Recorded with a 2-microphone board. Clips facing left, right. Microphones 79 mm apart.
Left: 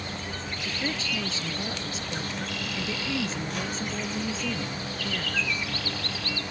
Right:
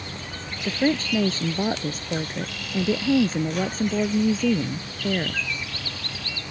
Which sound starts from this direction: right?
A woman speaking, at 0.7 s.